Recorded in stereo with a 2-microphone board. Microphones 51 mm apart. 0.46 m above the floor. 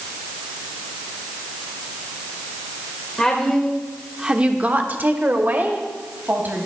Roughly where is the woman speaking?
Centre.